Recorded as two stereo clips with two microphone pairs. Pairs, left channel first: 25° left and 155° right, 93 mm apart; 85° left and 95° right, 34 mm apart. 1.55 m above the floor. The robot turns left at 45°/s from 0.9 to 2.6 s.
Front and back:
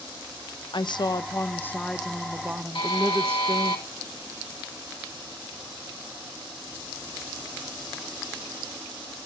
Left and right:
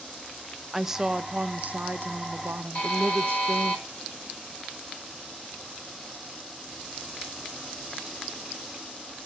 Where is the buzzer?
40° left, 2 m.